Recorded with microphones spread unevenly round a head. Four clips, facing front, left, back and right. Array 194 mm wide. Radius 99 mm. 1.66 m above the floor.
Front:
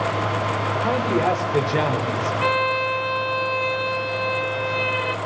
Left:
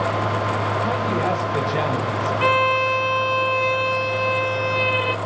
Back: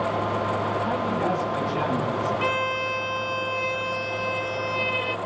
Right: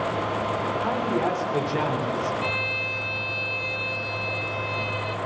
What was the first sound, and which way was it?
A man speaking, 10° right.